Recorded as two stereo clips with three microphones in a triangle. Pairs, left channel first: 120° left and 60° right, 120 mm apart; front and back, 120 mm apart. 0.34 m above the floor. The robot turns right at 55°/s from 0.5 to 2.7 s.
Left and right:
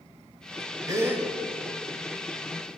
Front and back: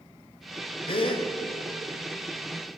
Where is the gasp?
10° right, 1.3 m; by 1.2 s 10° left, 1.3 m.